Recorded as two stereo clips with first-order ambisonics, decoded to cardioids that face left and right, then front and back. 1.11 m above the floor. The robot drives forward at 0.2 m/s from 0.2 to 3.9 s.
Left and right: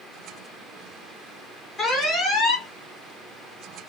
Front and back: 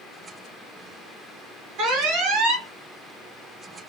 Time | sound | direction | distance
1.8 | an alarm | 165° left | 2.5 m